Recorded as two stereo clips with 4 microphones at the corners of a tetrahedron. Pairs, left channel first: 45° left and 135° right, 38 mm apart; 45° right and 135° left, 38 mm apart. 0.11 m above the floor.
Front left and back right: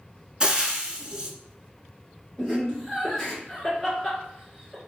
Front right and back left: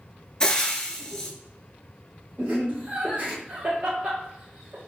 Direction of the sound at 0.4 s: 95° right.